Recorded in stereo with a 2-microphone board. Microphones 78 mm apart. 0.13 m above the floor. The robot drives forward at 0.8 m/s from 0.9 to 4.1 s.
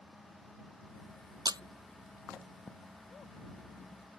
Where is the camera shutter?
60° right (ahead or behind); by 1.6 s 70° right (ahead or behind).